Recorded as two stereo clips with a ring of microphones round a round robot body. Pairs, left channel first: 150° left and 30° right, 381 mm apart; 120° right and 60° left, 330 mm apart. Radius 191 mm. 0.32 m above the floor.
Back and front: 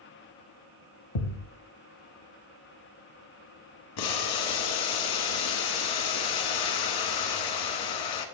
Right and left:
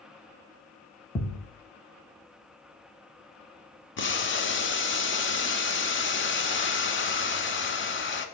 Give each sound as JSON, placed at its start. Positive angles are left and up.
{"t": 1.1, "sound": "a thud", "azimuth_deg": 160, "distance_m": 1.1}
{"t": 4.0, "sound": "boiling", "azimuth_deg": -175, "distance_m": 1.3}